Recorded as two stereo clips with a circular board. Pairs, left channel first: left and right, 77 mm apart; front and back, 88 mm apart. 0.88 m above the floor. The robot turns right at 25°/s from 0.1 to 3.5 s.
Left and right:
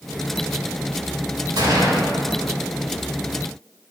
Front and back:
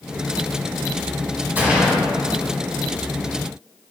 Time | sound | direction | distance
1.6 | a gunshot | 110° right | 2.5 m